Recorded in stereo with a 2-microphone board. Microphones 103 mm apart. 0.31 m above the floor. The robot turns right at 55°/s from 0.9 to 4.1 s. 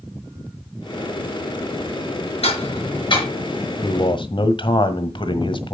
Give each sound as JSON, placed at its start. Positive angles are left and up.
{"t": 2.4, "sound": "ticking", "side_deg": 75, "distance_m": 5.5}
{"t": 3.8, "sound": "a man speaking", "side_deg": 50, "distance_m": 1.3}